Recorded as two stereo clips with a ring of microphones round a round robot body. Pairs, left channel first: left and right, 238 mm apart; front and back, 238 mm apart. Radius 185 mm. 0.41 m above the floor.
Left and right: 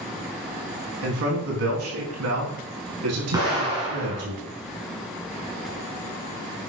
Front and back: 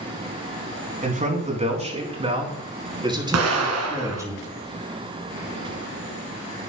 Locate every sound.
1.0 s a man speaking: 125° right, 4.5 m; by 4.3 s 100° right, 5.5 m
3.3 s an explosion: 170° right, 2 m